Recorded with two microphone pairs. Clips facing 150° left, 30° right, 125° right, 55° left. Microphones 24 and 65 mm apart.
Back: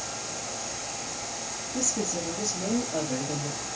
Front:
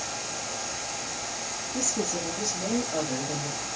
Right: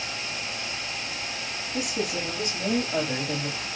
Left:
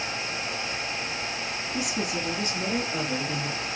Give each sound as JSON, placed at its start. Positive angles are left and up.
{"t": 1.7, "sound": "a woman speaking", "azimuth_deg": -75, "distance_m": 2.5}